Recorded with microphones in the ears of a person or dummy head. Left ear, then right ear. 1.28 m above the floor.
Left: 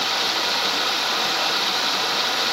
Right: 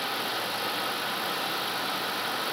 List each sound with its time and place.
0.0 s running water: 35° left (ahead or behind), 1.6 m